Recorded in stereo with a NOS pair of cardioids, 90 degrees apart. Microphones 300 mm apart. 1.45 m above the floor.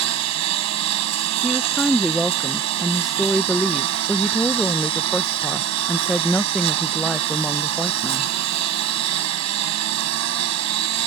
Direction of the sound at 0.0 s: 70° right.